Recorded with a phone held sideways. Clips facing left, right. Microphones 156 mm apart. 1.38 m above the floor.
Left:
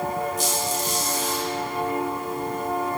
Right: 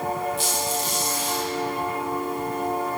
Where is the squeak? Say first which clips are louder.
Left 1 dB; 45° left (ahead or behind), 0.9 m.